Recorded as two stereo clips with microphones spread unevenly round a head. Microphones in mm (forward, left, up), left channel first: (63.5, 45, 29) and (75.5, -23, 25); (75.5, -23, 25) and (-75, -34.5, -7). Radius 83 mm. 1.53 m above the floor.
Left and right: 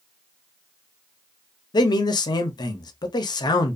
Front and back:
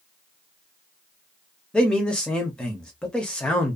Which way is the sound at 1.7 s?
85° left.